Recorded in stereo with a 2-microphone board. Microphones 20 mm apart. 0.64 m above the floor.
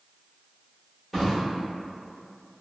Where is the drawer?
Centre (ahead or behind), 1.2 m.